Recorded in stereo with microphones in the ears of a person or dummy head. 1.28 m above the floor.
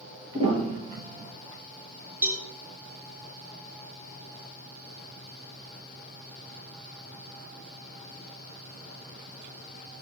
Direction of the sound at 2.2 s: 10° right (ahead or behind).